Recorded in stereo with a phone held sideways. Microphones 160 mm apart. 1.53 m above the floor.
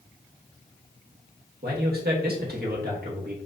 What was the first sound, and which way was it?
A man speaking, 75° right (ahead or behind).